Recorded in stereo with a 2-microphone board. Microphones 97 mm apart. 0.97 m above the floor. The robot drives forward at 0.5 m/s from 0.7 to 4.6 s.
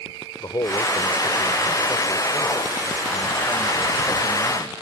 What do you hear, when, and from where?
0.4 s a man speaking: 45° left (ahead or behind); by 4.7 s 25° left (ahead or behind)